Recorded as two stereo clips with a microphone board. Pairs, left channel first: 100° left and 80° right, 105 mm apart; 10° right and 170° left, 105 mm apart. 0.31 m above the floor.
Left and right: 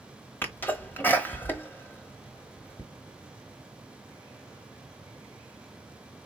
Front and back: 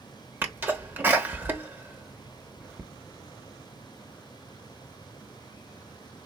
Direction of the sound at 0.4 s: 135° left.